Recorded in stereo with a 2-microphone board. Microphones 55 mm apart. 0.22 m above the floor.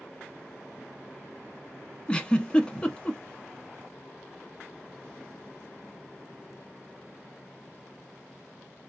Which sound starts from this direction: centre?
A giggle, at 2.1 s.